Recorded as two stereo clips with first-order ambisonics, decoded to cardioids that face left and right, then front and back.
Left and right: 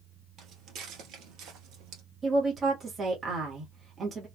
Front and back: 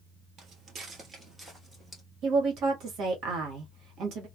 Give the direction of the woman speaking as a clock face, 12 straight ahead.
5 o'clock.